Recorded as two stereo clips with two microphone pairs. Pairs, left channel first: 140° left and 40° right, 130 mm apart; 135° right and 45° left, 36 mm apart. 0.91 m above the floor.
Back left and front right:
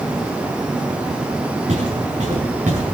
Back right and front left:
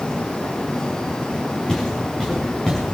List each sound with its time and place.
1.7 s footsteps: 65° right, 7 m; by 2.8 s 60° right, 7 m